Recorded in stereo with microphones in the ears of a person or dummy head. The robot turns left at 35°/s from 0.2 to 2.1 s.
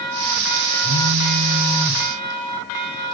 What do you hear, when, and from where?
0.8 s a phone buzzing: 145° right, 2.5 m; by 2.0 s 175° left, 2.5 m